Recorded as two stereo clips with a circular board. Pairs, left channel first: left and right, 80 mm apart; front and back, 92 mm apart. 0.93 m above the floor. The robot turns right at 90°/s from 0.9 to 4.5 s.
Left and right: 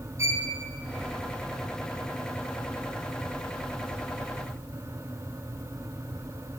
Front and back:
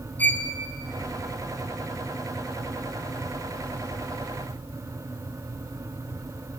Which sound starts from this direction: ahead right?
A violin, at 0.2 s.